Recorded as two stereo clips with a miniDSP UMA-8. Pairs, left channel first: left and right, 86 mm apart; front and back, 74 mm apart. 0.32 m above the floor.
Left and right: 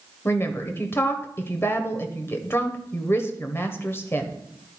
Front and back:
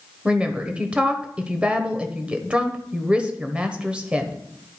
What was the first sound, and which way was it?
A woman speaking, 115° left.